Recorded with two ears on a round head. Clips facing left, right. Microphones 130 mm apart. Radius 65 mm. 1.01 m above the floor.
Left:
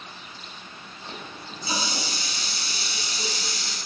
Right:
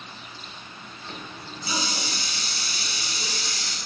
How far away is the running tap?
About 3.5 m.